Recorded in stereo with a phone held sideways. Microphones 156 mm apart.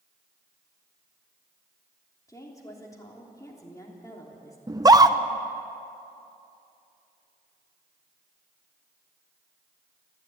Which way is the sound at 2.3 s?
20° left (ahead or behind).